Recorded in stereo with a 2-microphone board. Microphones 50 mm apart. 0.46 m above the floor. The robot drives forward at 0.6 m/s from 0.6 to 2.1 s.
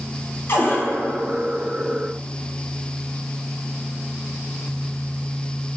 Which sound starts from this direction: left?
A cupboard door, at 0.5 s.